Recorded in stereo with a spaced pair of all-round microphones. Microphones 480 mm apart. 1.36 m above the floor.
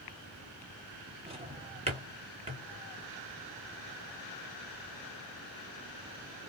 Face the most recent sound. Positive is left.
turn(degrees=-10)  # may be behind; listen again after turning